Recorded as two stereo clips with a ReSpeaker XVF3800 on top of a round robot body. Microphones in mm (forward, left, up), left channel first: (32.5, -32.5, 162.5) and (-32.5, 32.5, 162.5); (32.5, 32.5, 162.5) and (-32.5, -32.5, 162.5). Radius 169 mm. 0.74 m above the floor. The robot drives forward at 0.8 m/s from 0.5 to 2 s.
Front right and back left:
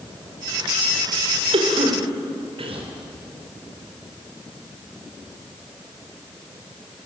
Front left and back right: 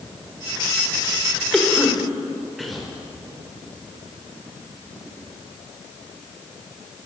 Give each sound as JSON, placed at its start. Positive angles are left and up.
{"t": 1.5, "sound": "a cough", "azimuth_deg": 130, "distance_m": 4.0}